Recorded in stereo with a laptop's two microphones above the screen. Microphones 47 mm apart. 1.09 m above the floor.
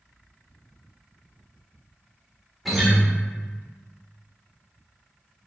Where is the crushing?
I don't hear crushing.